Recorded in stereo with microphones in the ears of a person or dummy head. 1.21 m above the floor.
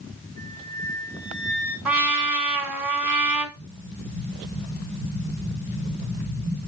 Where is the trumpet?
5° right (ahead or behind), 2.5 m.